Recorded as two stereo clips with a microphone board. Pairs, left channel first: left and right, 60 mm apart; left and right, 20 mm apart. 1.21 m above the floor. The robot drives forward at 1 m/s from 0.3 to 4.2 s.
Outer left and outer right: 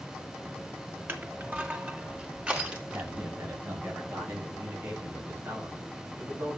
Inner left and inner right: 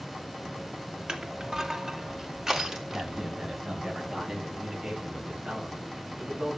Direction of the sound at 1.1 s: 40° right (ahead or behind).